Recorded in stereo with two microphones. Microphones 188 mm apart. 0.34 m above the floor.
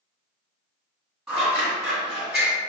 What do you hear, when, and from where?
1.3 s scissors: centre (ahead or behind), 1.9 m